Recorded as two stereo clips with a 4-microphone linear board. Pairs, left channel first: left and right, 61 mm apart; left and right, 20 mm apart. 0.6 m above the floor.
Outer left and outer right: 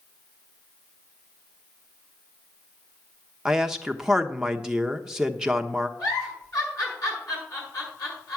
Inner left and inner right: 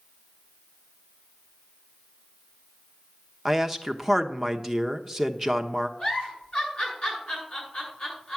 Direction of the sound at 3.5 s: 10° right (ahead or behind).